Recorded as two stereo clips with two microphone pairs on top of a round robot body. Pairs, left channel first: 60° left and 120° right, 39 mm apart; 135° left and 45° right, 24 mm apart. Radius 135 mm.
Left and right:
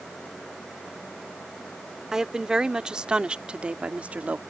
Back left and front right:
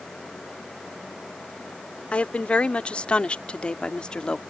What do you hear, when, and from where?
2.1 s a woman speaking: 165° left; by 4.4 s 175° right